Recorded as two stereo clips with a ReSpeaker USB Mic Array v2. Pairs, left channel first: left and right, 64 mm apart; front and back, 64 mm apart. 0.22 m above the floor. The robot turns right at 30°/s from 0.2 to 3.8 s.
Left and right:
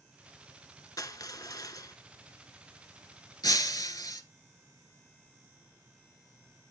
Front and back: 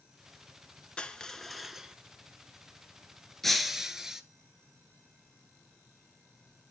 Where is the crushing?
75° left, 0.5 m; by 2.0 s 105° left, 0.5 m.